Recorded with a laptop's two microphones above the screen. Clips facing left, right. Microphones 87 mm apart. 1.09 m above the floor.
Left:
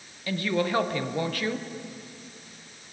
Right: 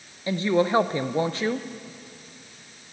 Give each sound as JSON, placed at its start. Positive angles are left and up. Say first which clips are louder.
{"t": 0.3, "sound": "a woman speaking", "louder": "right 5 dB", "side_deg": -25, "distance_m": 0.6}